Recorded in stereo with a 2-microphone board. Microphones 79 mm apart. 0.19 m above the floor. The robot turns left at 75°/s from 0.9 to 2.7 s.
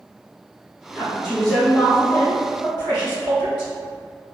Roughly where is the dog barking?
I don't hear a dog barking.